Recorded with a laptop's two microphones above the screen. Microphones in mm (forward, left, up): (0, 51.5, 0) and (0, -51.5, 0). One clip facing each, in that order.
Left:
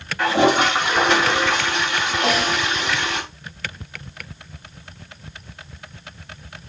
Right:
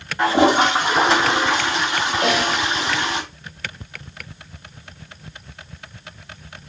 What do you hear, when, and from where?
0.2 s a toilet flushing: 25° right (ahead or behind), 1.8 m
2.2 s a snare drum: 50° right (ahead or behind), 4.5 m